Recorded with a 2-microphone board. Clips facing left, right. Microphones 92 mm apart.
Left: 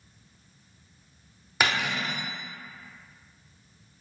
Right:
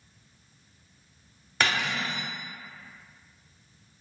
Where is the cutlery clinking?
10° left (ahead or behind), 0.7 m.